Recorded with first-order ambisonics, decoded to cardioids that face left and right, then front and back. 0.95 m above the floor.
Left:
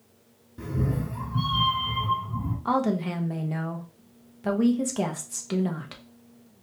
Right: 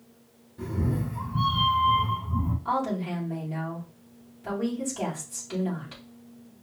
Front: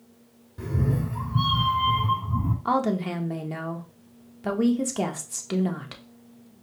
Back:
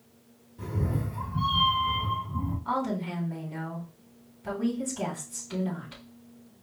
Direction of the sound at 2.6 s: 35° left.